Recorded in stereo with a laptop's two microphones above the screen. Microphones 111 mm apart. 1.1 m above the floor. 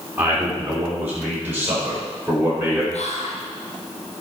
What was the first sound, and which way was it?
A man speaking, 15° right (ahead or behind).